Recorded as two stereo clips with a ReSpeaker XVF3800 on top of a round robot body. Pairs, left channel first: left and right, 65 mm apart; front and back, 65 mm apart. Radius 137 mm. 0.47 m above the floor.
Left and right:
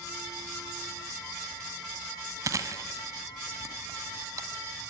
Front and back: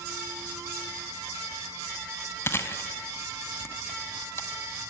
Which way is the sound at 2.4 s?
50° right.